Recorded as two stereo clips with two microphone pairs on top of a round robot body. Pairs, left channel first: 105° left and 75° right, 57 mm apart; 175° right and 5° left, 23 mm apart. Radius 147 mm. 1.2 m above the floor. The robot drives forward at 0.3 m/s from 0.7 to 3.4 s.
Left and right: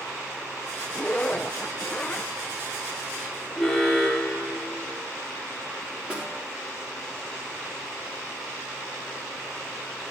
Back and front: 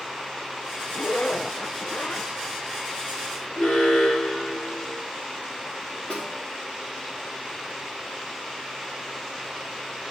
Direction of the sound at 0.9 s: Straight behind.